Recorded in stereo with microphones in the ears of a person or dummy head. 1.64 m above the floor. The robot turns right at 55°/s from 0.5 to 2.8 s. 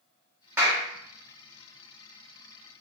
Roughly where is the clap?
Centre.